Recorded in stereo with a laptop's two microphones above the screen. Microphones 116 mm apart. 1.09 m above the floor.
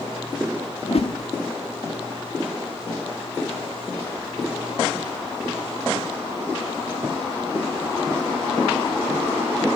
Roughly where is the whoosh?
Left.